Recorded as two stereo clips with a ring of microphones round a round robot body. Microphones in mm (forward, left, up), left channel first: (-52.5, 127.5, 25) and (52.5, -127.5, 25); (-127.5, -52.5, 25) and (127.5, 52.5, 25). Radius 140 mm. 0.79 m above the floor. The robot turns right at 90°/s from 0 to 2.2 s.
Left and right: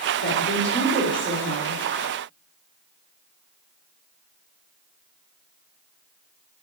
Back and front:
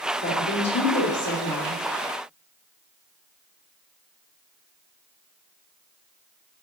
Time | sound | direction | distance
0.2 | a woman speaking | 140° left | 1.8 m